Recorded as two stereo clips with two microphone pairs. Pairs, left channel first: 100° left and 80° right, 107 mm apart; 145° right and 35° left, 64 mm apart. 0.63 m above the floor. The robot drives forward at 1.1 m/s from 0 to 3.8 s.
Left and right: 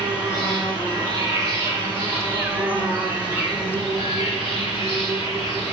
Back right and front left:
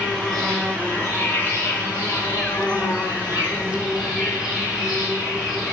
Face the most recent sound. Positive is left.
turn(degrees=-160)